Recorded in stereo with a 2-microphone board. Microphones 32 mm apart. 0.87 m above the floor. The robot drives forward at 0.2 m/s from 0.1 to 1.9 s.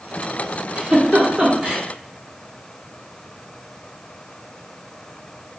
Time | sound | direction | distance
0.8 | a giggle | 30° right (ahead or behind) | 1.1 m